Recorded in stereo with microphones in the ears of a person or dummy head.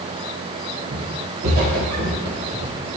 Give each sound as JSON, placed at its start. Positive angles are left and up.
{"t": 0.9, "sound": "footsteps", "side_deg": -55, "distance_m": 3.0}